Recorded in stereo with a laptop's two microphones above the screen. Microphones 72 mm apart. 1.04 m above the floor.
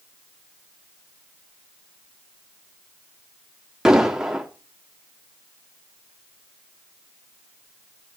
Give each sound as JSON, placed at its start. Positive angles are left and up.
{"t": 3.9, "sound": "an explosion", "side_deg": -10, "distance_m": 3.0}